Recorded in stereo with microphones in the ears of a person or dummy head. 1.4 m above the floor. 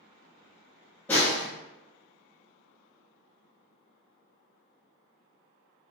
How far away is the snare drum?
About 1.2 m.